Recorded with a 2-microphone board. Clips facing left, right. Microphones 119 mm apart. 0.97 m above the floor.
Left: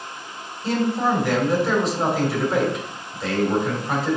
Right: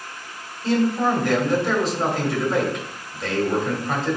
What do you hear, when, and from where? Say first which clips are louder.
0.6 s a man speaking: right 1 dB; centre (ahead or behind), 3.5 m